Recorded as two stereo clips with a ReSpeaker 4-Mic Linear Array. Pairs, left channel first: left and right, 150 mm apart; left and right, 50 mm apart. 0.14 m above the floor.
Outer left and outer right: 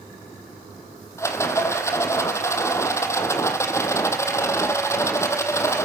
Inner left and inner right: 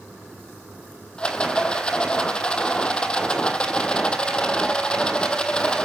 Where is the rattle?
20° left (ahead or behind), 1.9 m.